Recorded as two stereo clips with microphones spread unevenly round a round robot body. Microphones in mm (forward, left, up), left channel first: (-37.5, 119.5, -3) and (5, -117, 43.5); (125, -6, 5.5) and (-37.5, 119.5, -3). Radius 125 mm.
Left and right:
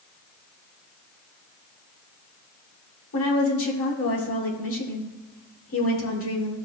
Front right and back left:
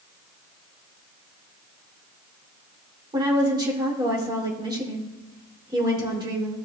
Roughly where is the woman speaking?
Left.